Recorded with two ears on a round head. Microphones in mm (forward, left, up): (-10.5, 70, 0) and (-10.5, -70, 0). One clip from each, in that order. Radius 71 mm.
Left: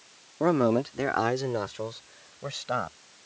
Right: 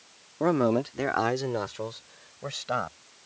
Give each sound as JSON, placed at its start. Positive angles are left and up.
{"t": 0.4, "sound": "a man speaking", "side_deg": 0}